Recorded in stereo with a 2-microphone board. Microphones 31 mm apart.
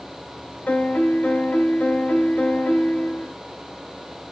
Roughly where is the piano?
Left.